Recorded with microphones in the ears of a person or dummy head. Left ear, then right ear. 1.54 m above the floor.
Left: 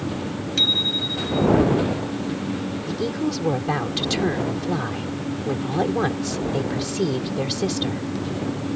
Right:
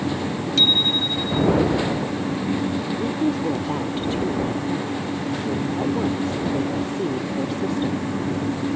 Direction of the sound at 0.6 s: 5° left (ahead or behind).